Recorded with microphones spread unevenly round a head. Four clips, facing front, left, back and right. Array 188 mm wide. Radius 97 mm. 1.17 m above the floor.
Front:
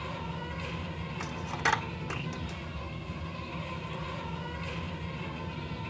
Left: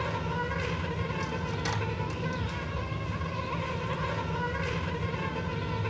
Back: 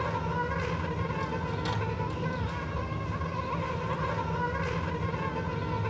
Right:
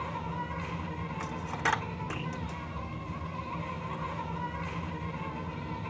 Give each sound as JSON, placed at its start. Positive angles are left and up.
{"t": 0.0, "sound": "an insect", "azimuth_deg": 135, "distance_m": 2.5}
{"t": 1.2, "sound": "a dropped coin", "azimuth_deg": -20, "distance_m": 1.4}